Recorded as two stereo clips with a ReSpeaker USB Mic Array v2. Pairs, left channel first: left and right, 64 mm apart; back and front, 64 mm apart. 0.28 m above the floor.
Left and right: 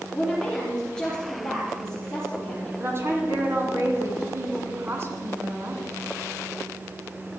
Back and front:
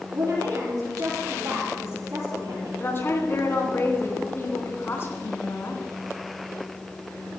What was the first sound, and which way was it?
A woman speaking, 10° left.